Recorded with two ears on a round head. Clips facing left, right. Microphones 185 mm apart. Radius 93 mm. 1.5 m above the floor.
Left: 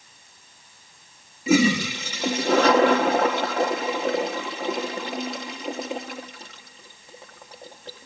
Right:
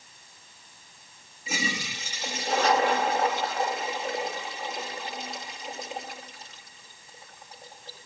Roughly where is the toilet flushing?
Left.